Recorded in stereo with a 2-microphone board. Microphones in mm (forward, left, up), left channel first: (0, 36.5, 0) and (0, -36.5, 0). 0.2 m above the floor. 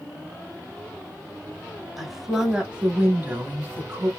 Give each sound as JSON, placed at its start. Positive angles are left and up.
{"t": 2.0, "sound": "a woman speaking", "side_deg": 0, "distance_m": 1.3}